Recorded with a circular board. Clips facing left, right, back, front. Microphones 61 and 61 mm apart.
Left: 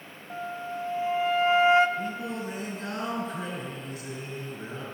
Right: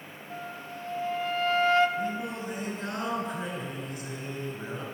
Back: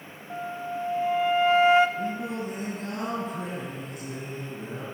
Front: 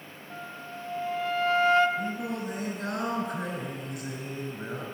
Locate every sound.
0.3 s a flute: 135° left, 0.6 m
2.0 s singing: 20° right, 3 m